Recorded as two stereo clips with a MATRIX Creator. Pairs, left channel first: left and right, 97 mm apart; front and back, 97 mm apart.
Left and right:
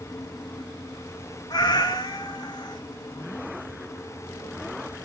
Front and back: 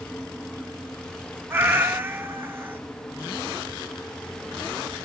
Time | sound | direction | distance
1.5 | a cat meowing | 120° left | 1.0 m